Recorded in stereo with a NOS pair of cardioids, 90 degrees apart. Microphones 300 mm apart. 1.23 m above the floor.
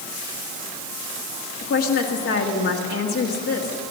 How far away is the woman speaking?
About 2.0 m.